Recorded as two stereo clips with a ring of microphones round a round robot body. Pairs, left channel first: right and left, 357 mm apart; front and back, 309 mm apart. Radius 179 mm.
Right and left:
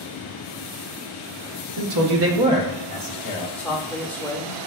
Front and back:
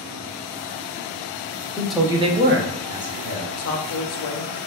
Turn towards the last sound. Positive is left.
turn(degrees=-5)